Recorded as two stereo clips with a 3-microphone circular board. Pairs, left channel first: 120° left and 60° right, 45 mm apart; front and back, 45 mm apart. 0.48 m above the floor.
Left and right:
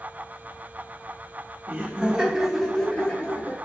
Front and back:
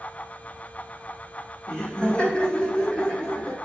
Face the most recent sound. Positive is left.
turn(degrees=70)